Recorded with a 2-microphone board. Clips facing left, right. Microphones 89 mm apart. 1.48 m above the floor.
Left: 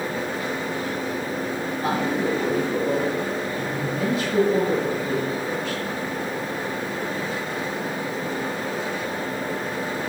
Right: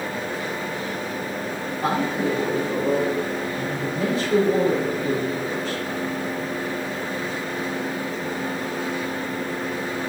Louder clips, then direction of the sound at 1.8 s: Right 1 dB; 35° right (ahead or behind).